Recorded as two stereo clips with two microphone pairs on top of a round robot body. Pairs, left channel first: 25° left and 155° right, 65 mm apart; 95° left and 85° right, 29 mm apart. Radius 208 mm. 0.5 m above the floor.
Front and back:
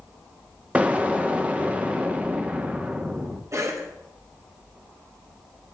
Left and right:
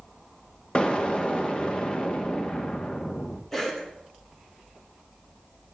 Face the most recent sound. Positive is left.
turn(degrees=180)